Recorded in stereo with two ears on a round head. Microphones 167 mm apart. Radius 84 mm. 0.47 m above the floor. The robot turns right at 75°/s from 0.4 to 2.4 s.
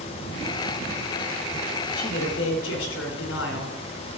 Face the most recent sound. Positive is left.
turn(degrees=90)